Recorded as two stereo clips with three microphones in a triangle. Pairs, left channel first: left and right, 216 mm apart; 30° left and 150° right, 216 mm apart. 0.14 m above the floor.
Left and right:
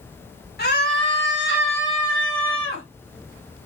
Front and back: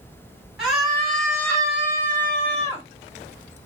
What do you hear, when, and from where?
0.6 s a scream: 125° left, 2.5 m; by 2.9 s 105° left, 4 m